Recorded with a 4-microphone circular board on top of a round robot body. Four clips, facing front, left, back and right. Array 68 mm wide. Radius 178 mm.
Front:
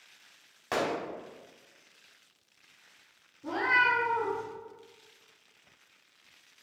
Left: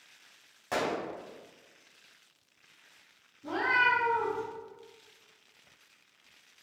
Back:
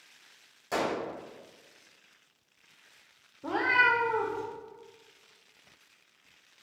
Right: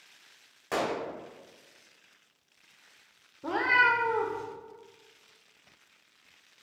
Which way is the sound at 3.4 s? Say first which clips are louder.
Right 3 dB, back 1 dB; 120° right.